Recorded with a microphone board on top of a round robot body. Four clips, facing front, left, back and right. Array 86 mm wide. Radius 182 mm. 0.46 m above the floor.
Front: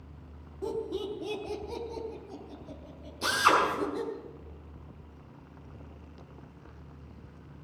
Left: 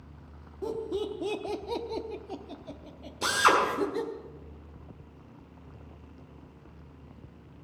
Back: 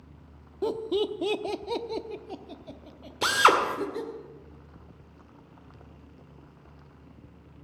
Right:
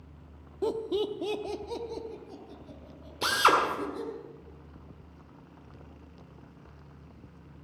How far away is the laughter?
About 1.1 m.